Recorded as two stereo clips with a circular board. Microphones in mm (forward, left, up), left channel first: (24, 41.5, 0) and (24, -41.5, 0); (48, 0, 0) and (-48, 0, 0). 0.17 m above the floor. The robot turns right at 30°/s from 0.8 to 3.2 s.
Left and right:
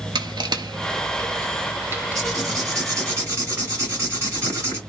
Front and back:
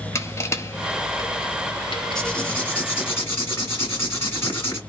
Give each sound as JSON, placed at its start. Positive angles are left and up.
{"t": 0.1, "sound": "crushing", "azimuth_deg": -60, "distance_m": 0.6}
{"t": 2.1, "sound": "writing", "azimuth_deg": -80, "distance_m": 1.8}